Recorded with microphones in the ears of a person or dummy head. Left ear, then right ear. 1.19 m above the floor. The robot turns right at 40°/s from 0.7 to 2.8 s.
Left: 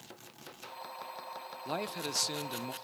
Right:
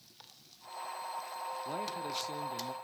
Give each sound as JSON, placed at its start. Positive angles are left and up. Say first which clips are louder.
{"t": 1.6, "sound": "a man speaking", "louder": "left 1 dB", "azimuth_deg": 30, "distance_m": 0.9}